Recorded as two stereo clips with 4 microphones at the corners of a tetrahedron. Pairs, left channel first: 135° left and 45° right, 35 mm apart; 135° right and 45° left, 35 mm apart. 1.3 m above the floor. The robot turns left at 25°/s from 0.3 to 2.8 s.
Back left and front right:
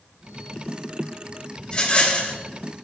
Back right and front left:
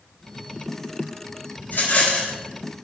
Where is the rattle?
165° right, 3 m; by 2.4 s 175° left, 3 m.